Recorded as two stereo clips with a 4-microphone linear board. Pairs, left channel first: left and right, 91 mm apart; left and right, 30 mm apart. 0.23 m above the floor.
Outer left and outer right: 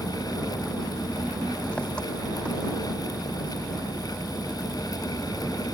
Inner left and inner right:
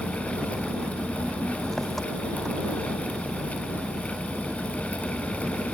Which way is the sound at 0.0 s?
10° left (ahead or behind).